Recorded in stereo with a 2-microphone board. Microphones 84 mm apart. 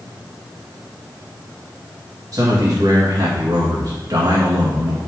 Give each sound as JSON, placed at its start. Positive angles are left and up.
{"t": 2.3, "sound": "a man speaking", "side_deg": -50, "distance_m": 1.9}